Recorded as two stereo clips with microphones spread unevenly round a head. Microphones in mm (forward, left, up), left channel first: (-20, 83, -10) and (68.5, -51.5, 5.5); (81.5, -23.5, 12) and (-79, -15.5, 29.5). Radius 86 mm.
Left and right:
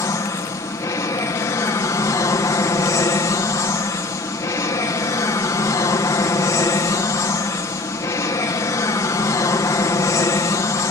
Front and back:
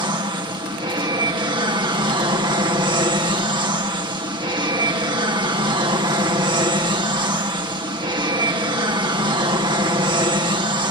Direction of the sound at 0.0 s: 155° left.